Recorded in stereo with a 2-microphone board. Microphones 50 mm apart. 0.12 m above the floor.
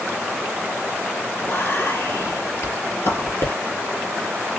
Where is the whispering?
60° left (ahead or behind), 3 m.